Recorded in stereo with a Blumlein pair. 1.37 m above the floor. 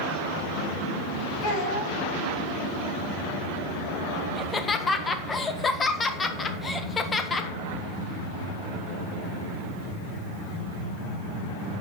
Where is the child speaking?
25° left, 5.5 m.